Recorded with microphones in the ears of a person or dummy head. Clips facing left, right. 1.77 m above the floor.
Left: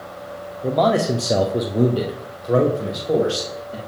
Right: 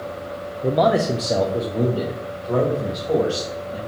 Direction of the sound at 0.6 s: 10° right (ahead or behind).